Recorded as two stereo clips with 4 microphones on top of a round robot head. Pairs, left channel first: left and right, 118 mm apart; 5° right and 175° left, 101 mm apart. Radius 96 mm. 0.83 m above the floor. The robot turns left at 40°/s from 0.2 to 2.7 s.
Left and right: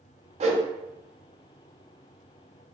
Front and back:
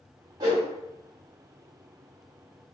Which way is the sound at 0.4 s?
120° right.